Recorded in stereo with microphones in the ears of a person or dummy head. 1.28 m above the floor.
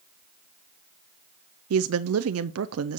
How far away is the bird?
No bird in this recording.